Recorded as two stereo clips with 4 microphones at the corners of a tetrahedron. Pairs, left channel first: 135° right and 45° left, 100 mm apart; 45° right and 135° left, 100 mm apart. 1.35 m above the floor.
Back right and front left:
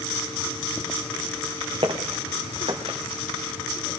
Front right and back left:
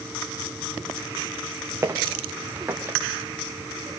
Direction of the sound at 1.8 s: 75° left.